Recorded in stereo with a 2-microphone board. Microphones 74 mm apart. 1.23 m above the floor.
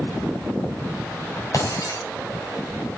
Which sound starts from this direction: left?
Breaking glass, at 1.5 s.